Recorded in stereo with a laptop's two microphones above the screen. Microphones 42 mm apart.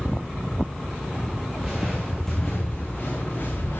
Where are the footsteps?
10° right (ahead or behind), 4 m; by 3.8 s 45° left (ahead or behind), 4 m.